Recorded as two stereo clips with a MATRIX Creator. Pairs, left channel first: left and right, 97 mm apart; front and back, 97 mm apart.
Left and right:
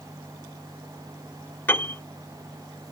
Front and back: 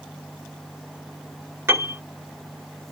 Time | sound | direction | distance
1.7 | a piano | 140° left | 1.3 m